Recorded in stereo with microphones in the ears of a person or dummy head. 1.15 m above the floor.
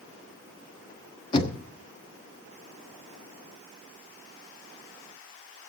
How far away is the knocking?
About 1.2 m.